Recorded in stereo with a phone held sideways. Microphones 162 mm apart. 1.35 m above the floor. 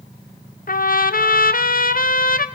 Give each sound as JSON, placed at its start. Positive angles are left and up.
{"t": 0.7, "sound": "a trumpet", "side_deg": 60, "distance_m": 0.6}